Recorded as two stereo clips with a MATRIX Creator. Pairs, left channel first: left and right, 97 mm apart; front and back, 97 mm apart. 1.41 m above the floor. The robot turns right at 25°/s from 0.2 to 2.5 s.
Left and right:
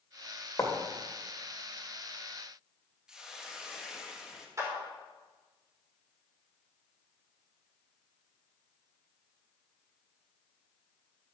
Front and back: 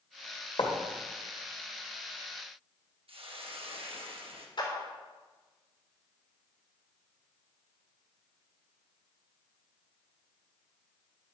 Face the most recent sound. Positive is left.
turn(degrees=-35)